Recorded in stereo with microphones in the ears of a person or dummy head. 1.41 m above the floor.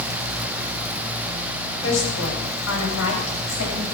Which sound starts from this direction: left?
A woman speaking, at 1.8 s.